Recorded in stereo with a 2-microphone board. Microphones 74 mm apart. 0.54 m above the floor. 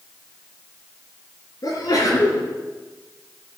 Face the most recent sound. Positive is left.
turn(degrees=60)  # may be behind; listen again after turning